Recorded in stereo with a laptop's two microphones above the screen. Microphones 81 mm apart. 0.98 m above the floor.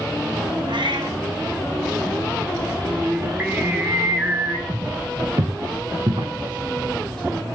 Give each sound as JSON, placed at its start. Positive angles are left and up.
{"t": 0.7, "sound": "a cat meowing", "side_deg": -75, "distance_m": 3.0}
{"t": 2.9, "sound": "singing", "side_deg": -25, "distance_m": 1.8}
{"t": 4.7, "sound": "footsteps", "side_deg": -50, "distance_m": 4.0}